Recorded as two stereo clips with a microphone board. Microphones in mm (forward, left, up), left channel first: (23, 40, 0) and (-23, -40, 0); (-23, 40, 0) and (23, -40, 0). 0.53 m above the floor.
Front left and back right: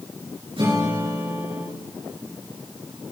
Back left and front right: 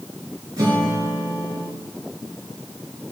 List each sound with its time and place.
0.6 s a guitar: 110° right, 6 m